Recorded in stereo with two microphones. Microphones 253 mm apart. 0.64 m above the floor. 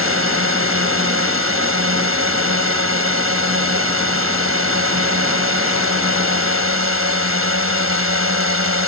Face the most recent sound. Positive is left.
turn(degrees=-55)  # may be behind; listen again after turning